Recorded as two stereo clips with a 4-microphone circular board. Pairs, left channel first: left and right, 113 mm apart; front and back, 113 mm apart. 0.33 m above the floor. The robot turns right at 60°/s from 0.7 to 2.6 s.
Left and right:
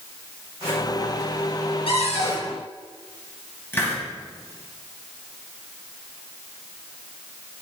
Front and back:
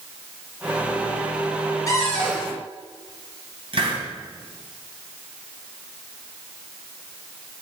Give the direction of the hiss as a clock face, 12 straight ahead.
7 o'clock.